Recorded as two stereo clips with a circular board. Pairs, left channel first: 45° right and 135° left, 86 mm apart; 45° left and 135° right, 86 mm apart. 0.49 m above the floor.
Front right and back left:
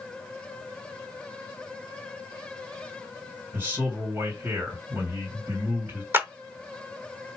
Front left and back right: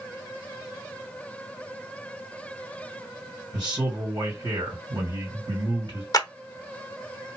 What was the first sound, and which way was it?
A man speaking, 170° right.